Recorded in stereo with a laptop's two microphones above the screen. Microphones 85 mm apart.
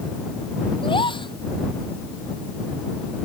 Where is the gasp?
85° left.